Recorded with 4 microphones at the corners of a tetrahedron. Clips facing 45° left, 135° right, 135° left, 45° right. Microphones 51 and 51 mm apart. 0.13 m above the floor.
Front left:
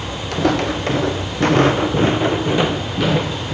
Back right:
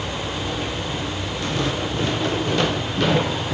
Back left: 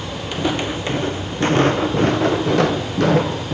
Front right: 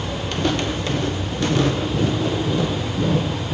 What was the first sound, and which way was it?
Footsteps, 55° left.